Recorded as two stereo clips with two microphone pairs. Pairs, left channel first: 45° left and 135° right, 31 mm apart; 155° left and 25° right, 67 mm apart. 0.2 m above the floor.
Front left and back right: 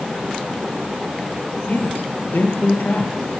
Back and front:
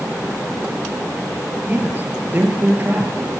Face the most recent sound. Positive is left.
turn(degrees=35)